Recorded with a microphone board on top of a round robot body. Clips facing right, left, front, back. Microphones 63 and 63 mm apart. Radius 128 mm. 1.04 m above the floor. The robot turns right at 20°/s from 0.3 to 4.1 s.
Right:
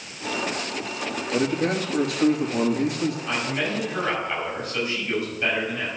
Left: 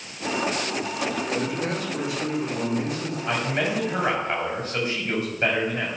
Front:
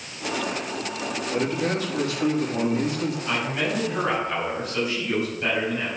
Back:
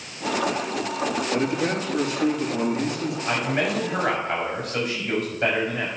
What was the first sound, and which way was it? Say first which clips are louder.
A man speaking: right 3 dB, front 2 dB; 130° right.